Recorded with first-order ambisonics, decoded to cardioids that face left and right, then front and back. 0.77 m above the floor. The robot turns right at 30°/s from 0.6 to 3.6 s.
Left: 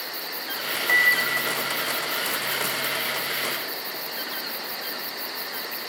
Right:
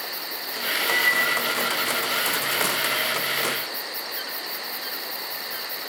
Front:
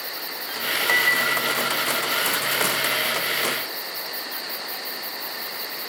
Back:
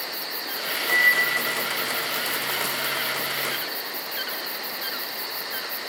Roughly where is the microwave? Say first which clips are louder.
Left 3 dB, back 1 dB; ahead left.